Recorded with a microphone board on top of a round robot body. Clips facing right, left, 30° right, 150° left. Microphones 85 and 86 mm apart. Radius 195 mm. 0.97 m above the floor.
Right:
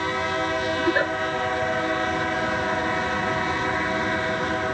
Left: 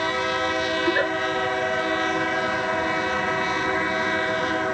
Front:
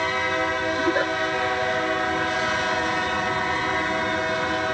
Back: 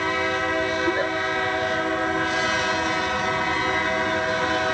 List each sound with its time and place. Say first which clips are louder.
0.8 s a giggle: right 1 dB, front 1 dB; 25° right, 6 m